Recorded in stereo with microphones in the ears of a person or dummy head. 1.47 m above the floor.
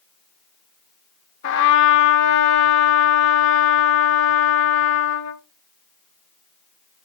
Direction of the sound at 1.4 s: 70° left (ahead or behind).